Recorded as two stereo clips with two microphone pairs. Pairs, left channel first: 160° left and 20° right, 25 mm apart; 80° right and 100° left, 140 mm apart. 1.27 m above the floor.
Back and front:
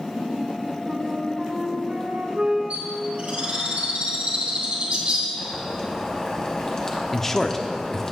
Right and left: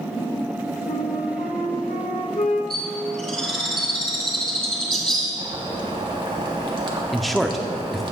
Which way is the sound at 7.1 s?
160° right.